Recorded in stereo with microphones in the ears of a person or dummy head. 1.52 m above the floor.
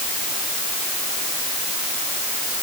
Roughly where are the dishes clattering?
No dishes clattering in this recording.